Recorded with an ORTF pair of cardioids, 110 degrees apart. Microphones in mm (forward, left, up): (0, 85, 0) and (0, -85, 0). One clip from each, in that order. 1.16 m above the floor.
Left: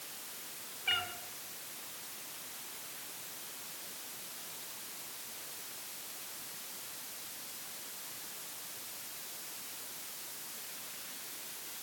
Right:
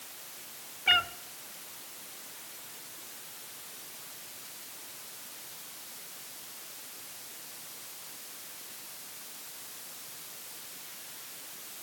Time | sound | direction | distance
0.9 | a cat meowing | 40° right | 1.9 m